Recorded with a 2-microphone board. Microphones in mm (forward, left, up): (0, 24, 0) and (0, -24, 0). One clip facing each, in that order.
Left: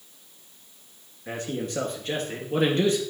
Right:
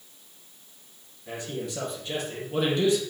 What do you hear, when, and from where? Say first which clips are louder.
1.3 s a man speaking: left 3 dB; 45° left (ahead or behind), 2.5 m